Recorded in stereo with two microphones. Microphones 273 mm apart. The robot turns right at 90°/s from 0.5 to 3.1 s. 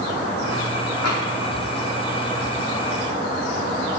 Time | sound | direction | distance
1.0 | tapping | 65° left (ahead or behind) | 4 m